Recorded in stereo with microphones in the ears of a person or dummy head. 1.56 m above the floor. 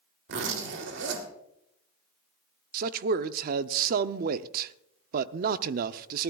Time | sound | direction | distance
0.3 | a zipper | 65° right (ahead or behind) | 2.5 m
2.7 | a man speaking | 55° right (ahead or behind) | 0.6 m